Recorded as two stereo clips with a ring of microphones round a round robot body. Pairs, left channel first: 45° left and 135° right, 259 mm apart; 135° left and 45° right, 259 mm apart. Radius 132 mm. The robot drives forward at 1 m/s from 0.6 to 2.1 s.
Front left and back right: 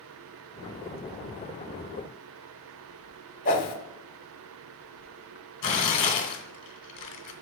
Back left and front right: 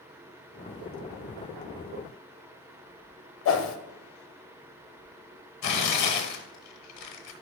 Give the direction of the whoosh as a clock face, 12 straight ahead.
9 o'clock.